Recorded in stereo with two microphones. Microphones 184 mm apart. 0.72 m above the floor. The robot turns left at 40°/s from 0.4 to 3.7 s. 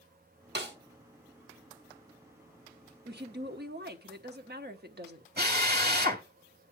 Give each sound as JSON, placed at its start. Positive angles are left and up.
{"t": 0.6, "sound": "a snare drum", "side_deg": -65, "distance_m": 1.4}
{"t": 3.0, "sound": "a woman speaking", "side_deg": -60, "distance_m": 1.1}
{"t": 5.4, "sound": "a drill", "side_deg": -60, "distance_m": 2.0}